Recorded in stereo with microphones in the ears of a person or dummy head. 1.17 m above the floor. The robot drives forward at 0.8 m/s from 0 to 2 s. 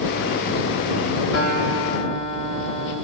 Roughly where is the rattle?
No rattle in this recording.